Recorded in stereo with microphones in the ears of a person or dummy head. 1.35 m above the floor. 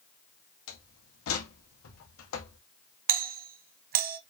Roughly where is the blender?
No blender in this recording.